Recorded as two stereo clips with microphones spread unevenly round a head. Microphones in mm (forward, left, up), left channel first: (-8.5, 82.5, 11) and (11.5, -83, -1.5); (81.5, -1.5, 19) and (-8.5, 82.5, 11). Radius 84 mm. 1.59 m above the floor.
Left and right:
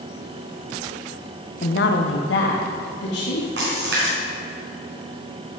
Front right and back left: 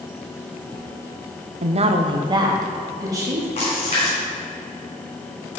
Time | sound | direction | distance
1.6 | a woman speaking | 130° left | 0.6 m
3.6 | a splash | 85° right | 3 m